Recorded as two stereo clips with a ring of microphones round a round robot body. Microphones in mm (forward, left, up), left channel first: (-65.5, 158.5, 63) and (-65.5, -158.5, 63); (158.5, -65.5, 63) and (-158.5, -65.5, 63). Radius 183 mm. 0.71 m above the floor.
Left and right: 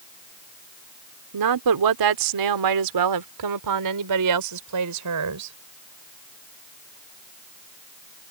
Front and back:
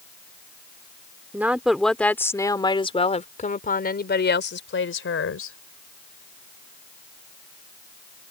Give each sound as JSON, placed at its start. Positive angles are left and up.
{"t": 1.3, "sound": "a woman speaking", "azimuth_deg": -95}